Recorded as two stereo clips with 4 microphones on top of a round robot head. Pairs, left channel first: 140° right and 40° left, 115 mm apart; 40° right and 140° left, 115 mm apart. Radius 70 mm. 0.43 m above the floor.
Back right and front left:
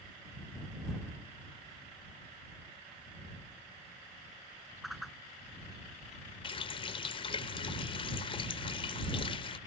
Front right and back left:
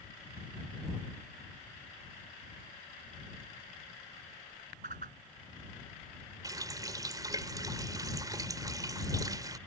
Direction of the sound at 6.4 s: 170° right.